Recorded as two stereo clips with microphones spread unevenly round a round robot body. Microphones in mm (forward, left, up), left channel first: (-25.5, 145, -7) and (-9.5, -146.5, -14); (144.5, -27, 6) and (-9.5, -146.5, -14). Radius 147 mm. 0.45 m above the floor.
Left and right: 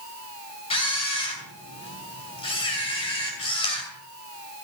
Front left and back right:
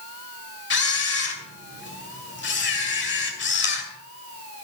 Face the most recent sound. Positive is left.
turn(degrees=20)